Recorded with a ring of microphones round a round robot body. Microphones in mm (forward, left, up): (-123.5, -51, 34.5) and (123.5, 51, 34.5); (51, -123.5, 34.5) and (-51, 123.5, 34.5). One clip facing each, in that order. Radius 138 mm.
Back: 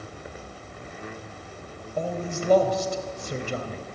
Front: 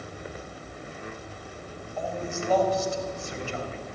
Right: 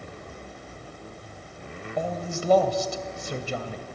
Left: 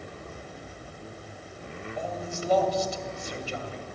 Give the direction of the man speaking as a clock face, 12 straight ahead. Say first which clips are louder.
Back 3 dB, right 5 dB; 4 o'clock.